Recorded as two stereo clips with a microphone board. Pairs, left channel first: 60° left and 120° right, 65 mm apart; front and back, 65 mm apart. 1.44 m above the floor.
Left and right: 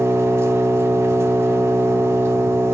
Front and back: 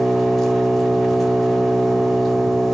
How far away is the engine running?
About 0.8 m.